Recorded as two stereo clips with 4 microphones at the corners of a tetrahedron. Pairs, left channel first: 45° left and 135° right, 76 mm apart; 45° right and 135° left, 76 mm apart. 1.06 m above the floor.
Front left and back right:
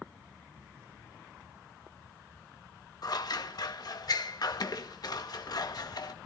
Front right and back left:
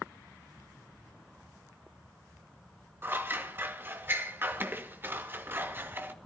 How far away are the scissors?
About 1.6 m.